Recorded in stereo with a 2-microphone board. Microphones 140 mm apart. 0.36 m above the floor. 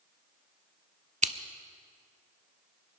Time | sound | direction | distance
1.2 | scissors | 60° right (ahead or behind) | 0.7 m